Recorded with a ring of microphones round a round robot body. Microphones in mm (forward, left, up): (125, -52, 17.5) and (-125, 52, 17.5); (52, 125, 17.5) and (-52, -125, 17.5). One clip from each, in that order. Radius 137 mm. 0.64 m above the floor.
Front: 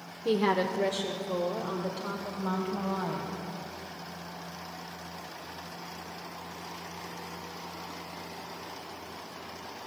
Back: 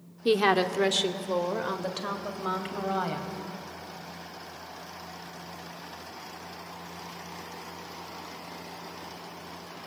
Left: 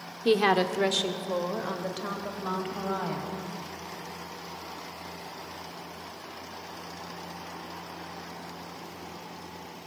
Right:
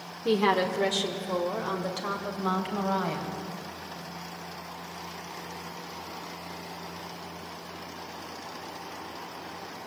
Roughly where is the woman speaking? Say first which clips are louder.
Back 4 dB, left 1 dB; behind left.